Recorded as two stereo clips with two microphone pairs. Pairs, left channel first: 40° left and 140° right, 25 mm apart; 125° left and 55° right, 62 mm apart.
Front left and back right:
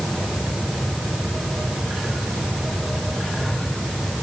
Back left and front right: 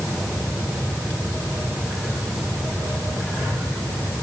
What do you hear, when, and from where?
Only background noise.